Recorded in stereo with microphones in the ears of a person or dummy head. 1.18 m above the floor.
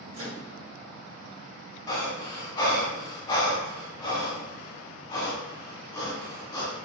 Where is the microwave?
80° right, 1.3 m.